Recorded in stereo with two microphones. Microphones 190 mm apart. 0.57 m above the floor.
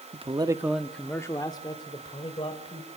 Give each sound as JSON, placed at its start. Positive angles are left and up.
{"t": 0.1, "sound": "a man speaking", "side_deg": -30, "distance_m": 0.9}